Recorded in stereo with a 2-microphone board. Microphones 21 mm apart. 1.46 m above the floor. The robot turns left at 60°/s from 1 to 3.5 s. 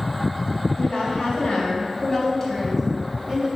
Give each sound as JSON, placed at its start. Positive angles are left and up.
{"t": 0.8, "sound": "a woman speaking", "azimuth_deg": 105, "distance_m": 2.5}